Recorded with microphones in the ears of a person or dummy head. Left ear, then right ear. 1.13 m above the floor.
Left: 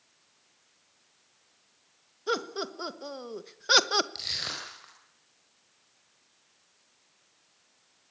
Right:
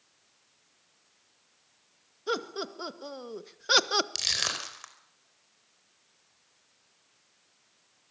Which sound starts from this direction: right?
Crushing, at 4.2 s.